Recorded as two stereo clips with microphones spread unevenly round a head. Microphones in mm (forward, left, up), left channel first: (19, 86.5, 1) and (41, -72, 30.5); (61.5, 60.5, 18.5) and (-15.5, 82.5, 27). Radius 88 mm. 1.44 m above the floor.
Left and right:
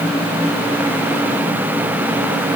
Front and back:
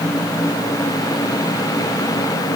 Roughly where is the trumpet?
I don't hear a trumpet.